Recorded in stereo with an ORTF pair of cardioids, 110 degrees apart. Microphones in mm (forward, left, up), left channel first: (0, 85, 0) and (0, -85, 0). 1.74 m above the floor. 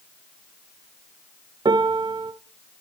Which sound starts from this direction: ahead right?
A piano, at 1.6 s.